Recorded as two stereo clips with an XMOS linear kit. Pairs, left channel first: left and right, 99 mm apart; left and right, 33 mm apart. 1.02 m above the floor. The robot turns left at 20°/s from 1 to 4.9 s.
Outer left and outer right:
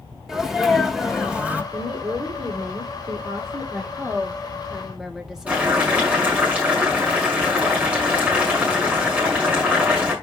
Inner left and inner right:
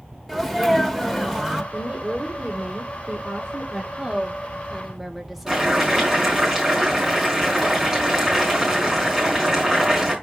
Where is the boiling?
15° right (ahead or behind), 5.5 m.